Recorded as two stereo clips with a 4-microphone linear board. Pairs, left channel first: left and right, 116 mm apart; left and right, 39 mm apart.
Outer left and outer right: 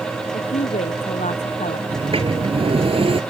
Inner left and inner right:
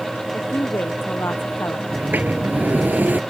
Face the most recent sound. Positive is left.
turn(degrees=-55)  # may be behind; listen again after turning